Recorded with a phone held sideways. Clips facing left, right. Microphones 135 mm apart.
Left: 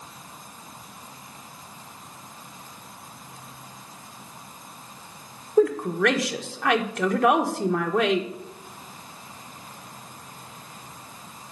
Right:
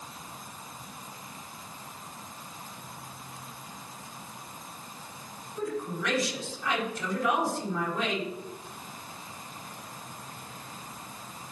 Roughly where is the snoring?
I don't hear snoring.